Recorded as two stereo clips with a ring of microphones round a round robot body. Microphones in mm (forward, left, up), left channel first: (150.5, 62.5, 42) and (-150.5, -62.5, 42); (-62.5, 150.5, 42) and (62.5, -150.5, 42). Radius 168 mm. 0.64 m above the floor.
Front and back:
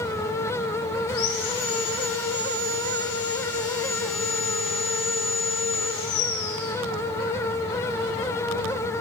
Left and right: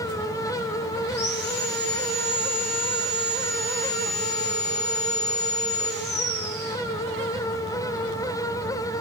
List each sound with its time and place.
1.1 s sawing: 55° left, 3.5 m